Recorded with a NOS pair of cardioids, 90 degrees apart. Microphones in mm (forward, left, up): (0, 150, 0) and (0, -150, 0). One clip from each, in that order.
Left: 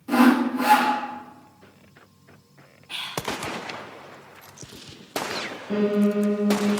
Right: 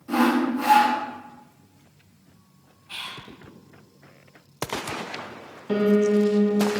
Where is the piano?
35° right, 1.5 m.